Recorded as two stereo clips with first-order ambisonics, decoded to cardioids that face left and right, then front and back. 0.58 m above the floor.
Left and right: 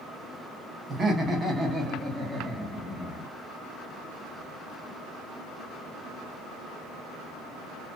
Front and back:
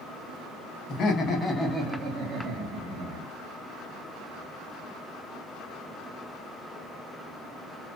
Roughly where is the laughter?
Ahead right.